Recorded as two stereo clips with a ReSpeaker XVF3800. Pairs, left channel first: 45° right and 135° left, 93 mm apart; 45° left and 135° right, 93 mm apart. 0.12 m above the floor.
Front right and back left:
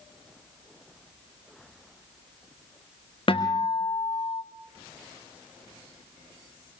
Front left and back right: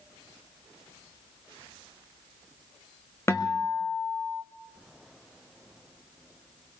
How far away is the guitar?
About 3 m.